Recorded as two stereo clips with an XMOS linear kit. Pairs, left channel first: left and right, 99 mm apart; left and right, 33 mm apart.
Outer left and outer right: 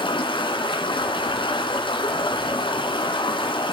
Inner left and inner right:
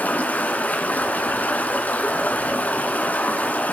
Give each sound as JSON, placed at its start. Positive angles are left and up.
{"t": 0.0, "sound": "running water", "side_deg": 65, "distance_m": 2.0}